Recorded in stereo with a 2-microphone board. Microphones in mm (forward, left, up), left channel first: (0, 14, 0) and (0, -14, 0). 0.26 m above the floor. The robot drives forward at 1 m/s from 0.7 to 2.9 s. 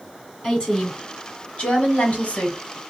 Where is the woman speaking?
25° left (ahead or behind), 2.5 m; by 2.6 s 50° left (ahead or behind), 1.5 m.